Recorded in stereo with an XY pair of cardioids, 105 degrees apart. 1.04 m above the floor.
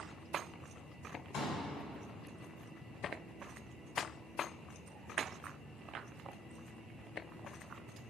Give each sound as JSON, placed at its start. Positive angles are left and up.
{"t": 1.3, "sound": "a pop", "azimuth_deg": 65, "distance_m": 4.0}